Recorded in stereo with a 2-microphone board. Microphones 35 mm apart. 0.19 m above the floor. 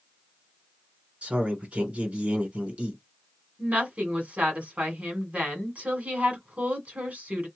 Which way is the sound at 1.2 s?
35° right (ahead or behind).